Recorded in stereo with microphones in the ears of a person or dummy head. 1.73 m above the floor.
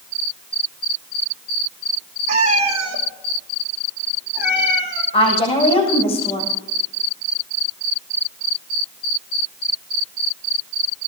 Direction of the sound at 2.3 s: 45° right (ahead or behind).